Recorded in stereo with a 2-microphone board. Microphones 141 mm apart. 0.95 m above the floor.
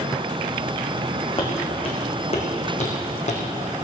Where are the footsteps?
40° left (ahead or behind), 3.5 m; by 3.4 s 55° left (ahead or behind), 3 m.